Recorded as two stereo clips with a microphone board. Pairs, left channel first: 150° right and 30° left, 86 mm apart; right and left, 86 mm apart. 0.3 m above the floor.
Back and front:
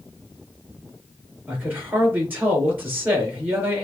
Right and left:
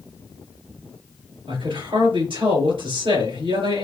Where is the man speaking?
100° left, 4 m.